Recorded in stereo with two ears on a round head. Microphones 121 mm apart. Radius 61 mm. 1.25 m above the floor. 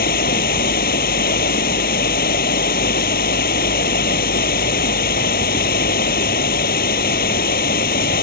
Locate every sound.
0.0 s running water: 80° left